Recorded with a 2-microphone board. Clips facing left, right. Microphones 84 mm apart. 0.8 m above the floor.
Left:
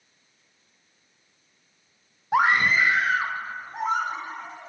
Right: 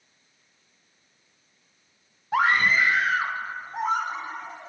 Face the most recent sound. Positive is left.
turn(degrees=-5)  # may be behind; listen again after turning